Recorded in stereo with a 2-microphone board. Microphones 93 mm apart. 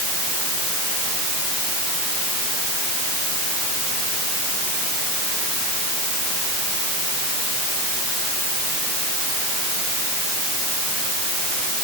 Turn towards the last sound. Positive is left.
No sound to turn to.